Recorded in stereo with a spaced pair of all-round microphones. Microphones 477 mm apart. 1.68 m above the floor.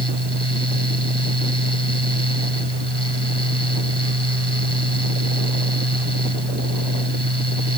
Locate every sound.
0.0 s a fan: 55° right (ahead or behind)